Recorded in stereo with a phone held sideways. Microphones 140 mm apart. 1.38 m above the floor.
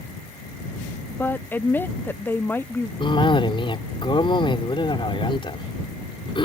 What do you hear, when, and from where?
1.1 s a woman speaking: 15° left (ahead or behind)
3.0 s a cough: 40° left (ahead or behind)